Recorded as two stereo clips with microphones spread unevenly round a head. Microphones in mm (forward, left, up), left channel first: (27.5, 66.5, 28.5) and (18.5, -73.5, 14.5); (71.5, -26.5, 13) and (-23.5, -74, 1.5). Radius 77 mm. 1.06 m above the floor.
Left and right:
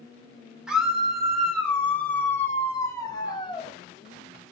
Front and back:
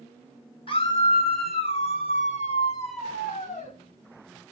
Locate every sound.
0.7 s a scream: 10° right, 3.5 m; by 3.7 s 30° left, 2.5 m